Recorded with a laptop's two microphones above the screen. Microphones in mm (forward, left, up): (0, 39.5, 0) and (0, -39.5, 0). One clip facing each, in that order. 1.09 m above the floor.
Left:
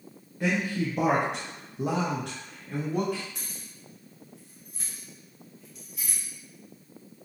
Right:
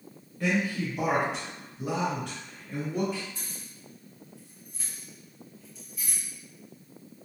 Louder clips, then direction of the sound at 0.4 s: Even; 15° left (ahead or behind).